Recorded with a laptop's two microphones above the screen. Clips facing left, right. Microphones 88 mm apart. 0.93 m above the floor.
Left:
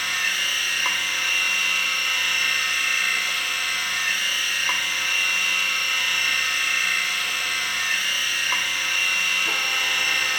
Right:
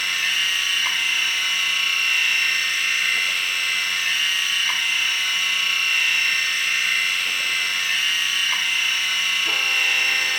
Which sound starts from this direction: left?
A machine running, at 0.0 s.